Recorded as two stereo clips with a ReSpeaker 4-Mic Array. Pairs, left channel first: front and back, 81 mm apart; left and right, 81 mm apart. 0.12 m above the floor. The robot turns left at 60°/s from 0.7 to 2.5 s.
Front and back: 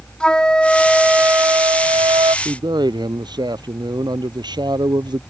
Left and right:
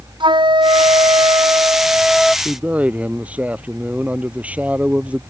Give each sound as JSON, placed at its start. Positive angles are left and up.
{"t": 0.2, "sound": "a flute", "azimuth_deg": -80}
{"t": 2.5, "sound": "a man speaking", "azimuth_deg": -160}